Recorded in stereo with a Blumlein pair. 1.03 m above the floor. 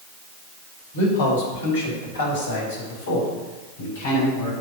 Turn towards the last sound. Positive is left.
turn(degrees=60)